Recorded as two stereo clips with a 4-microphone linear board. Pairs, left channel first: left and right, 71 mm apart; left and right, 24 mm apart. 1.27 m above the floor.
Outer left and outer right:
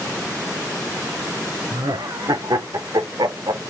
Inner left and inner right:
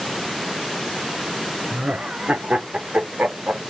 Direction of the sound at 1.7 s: 70° right (ahead or behind).